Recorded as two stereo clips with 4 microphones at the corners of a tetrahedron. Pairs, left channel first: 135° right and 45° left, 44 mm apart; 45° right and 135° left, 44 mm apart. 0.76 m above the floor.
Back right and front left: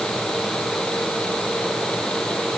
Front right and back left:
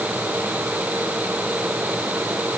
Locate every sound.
Only background noise.